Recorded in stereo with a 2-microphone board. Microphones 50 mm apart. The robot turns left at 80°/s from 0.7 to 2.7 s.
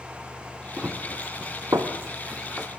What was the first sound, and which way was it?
Running footsteps, 20° right (ahead or behind).